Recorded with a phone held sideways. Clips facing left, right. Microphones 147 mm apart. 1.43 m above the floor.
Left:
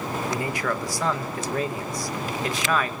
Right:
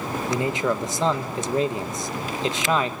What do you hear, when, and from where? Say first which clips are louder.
0.3 s a man speaking: right 6 dB; 20° right (ahead or behind), 1.6 m